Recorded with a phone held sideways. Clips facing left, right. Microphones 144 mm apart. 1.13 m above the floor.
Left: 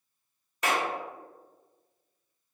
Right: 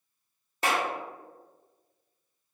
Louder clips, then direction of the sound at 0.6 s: Right 1 dB; 30° right (ahead or behind).